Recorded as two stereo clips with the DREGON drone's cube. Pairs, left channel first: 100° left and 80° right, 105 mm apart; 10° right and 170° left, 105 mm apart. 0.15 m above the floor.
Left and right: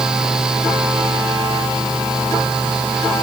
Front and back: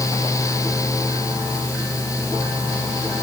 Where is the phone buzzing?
I don't hear a phone buzzing.